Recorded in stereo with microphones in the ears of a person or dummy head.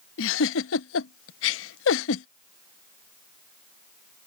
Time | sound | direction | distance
0.2 | a giggle | 80° left | ?